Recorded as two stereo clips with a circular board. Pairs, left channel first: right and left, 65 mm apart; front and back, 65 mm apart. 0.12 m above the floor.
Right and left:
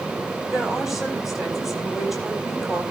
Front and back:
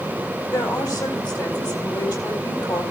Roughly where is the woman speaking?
Ahead.